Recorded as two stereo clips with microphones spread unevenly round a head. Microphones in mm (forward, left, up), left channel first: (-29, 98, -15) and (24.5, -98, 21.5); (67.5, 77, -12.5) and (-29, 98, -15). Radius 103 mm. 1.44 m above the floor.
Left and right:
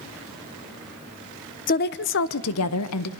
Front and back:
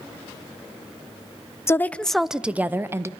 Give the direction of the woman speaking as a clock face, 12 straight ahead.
10 o'clock.